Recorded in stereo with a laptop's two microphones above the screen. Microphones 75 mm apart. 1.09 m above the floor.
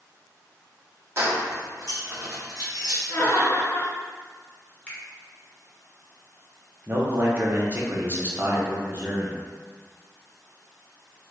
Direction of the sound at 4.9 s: 20° left (ahead or behind).